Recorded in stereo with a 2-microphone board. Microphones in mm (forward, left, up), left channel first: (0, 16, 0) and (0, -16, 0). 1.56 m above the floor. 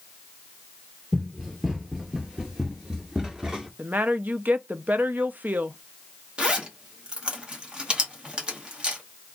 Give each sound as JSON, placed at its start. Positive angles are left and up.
{"t": 1.1, "sound": "running footsteps", "side_deg": -10, "distance_m": 2.0}
{"t": 3.8, "sound": "a woman speaking", "side_deg": -60, "distance_m": 0.6}
{"t": 6.4, "sound": "a zipper", "side_deg": -25, "distance_m": 1.8}